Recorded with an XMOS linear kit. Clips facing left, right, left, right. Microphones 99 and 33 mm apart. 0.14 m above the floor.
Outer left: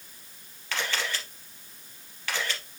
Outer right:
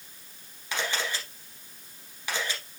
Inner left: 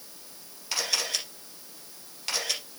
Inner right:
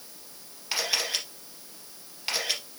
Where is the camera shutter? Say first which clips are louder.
Even, inner right 1 dB; 15° right (ahead or behind), 3 m.